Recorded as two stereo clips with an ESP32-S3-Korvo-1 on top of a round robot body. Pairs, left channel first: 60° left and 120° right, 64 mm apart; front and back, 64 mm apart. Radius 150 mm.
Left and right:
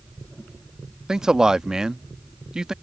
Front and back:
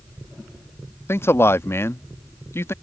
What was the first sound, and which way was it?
A man speaking, 40° right.